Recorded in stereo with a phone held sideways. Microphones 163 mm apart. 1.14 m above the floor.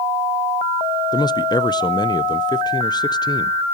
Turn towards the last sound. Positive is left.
turn(degrees=25)  # may be behind; listen again after turning